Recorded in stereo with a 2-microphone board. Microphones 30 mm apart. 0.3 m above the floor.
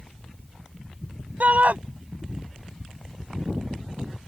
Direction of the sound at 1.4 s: 55° right (ahead or behind).